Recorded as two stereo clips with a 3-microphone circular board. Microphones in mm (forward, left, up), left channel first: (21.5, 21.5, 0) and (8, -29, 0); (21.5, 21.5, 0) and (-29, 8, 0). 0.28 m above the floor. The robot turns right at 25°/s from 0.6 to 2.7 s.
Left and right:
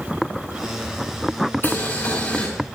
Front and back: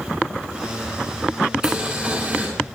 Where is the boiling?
120° left, 3.5 m; by 2.5 s 140° left, 3.5 m.